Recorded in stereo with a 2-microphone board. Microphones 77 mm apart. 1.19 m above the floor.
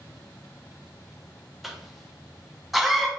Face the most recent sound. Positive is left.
turn(degrees=0)  # may be behind; listen again after turning